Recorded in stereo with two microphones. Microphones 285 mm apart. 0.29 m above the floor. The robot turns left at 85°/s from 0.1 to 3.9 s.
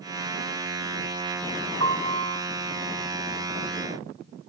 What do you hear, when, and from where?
1.8 s a piano: 80° right, 2 m; by 2.4 s 135° right, 2 m